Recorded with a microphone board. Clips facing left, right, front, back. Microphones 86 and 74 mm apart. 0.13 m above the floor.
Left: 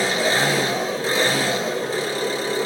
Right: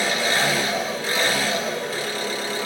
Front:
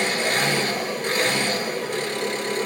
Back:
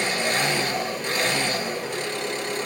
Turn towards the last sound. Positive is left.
turn(degrees=45)